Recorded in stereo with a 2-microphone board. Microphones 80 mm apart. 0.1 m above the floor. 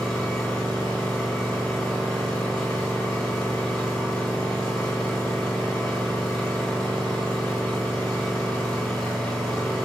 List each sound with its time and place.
0.0 s an engine running: 10° left (ahead or behind), 3 m